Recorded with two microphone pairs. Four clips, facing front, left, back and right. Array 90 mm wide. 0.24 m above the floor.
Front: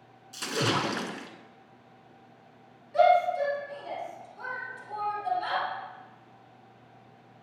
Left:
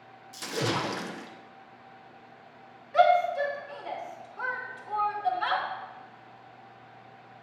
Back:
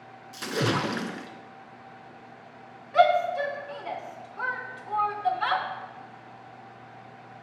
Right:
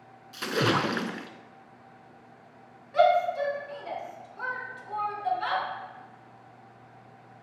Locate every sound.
0.3 s a splash: 95° right, 0.7 m
2.9 s a shout: 175° left, 2.5 m